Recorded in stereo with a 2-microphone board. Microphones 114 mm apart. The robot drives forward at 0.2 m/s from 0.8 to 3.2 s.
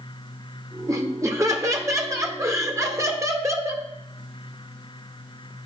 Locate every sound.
0.9 s laughter: 25° right (ahead or behind), 0.9 m